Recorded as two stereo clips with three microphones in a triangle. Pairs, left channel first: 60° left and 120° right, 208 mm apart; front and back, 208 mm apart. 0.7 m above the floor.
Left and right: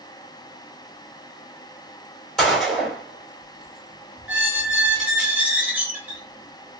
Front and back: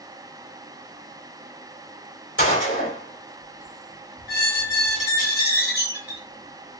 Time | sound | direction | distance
2.4 | a gunshot | 25° right | 2 m
4.3 | a squeak | 35° right | 1.1 m